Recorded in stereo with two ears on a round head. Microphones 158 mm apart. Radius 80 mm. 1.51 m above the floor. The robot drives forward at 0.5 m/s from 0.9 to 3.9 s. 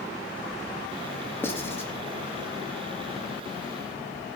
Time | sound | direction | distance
1.4 | writing | 15° left (ahead or behind) | 3 m